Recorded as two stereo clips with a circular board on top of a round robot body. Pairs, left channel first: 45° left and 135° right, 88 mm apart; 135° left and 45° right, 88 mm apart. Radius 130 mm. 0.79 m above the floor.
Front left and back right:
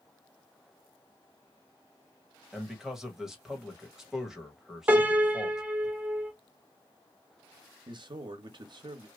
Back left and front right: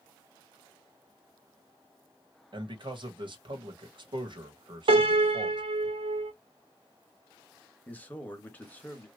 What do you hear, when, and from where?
2.5 s a man speaking: 50° right, 1.7 m
4.9 s a piano: 65° right, 1.3 m
7.9 s a man speaking: 155° right, 1.2 m